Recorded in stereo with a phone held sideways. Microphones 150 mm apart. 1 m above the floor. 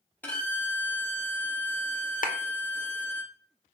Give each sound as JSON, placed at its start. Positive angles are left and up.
{"t": 0.2, "sound": "a violin", "side_deg": 10, "distance_m": 1.1}
{"t": 2.2, "sound": "a clap", "side_deg": 65, "distance_m": 0.6}